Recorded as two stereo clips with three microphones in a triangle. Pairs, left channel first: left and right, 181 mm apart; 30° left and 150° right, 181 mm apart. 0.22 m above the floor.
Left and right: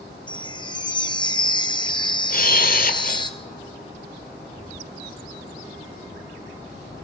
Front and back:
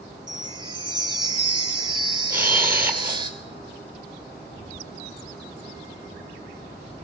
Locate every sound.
0.3 s a chime: 150° left, 1.3 m
2.3 s a camera shutter: 130° left, 1.3 m